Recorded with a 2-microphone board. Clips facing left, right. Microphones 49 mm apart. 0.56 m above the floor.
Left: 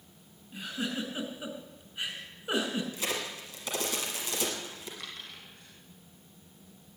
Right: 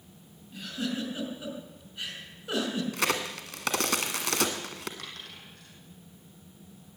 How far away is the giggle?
About 3.5 m.